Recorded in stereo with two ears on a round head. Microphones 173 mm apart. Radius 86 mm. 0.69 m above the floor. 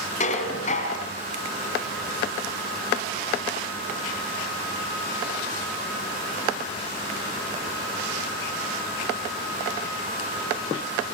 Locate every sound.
0.2 s dishes clattering: 35° left (ahead or behind), 3.5 m